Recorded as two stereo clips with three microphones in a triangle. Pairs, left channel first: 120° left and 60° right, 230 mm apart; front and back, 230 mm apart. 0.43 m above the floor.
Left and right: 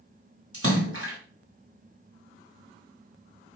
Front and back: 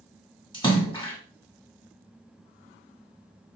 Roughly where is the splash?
Right.